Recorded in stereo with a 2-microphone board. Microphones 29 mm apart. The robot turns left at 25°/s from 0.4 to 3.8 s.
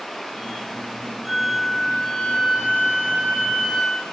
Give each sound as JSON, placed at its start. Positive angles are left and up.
{"t": 1.3, "sound": "a flute", "azimuth_deg": 130, "distance_m": 2.0}